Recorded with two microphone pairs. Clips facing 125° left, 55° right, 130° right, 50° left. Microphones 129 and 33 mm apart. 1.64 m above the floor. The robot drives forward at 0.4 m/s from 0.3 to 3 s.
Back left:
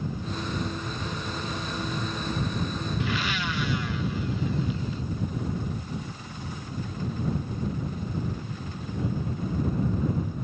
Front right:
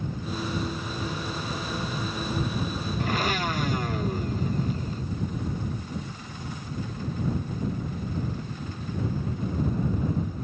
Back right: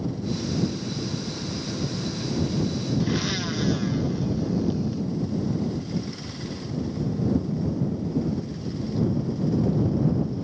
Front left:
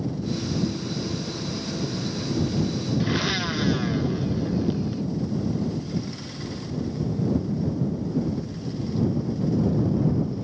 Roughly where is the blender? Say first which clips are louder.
Front right 6 dB, front left 3 dB; ahead right.